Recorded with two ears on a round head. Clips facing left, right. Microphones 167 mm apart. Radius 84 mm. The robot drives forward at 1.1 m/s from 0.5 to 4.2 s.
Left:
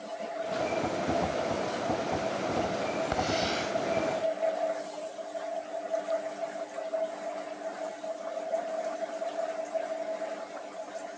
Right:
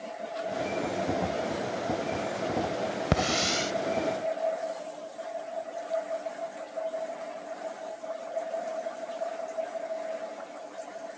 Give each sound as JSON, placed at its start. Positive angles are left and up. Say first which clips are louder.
{"t": 3.1, "sound": "a hiss", "louder": "right 1 dB", "side_deg": -70}